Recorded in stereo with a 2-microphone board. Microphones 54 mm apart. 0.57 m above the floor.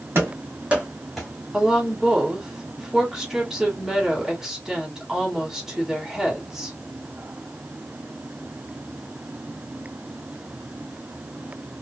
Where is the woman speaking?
5° right (ahead or behind), 1.6 m.